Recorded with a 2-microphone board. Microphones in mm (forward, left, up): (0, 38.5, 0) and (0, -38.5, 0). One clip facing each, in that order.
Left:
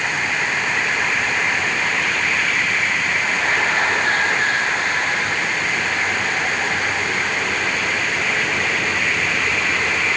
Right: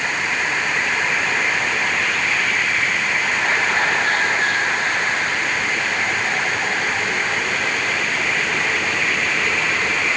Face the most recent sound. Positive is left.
No sound to turn to.